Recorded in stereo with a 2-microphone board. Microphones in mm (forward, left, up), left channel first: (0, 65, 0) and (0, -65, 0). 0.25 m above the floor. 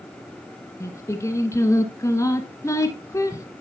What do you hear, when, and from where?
0.8 s singing: 25° left (ahead or behind), 1.0 m